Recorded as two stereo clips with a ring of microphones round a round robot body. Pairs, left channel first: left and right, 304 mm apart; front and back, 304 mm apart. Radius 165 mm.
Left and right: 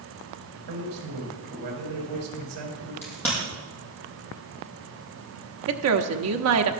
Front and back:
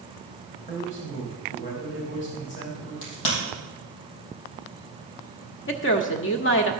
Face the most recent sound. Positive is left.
turn(degrees=-50)